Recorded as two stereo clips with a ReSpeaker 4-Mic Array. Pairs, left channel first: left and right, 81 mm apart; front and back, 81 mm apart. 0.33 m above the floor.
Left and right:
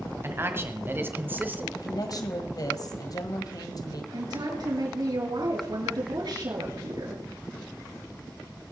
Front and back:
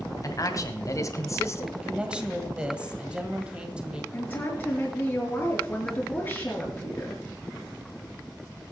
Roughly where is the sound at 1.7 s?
Left.